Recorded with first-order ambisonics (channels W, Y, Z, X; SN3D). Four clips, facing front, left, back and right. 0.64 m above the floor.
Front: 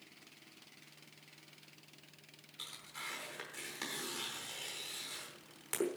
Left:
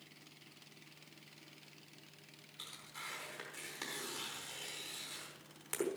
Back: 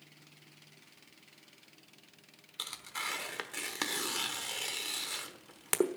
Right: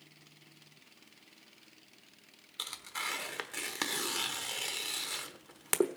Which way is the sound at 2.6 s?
130° right.